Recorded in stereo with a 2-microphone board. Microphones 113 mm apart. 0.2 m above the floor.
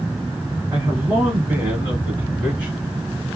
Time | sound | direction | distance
0.7 | a man speaking | 20° right (ahead or behind) | 1.3 m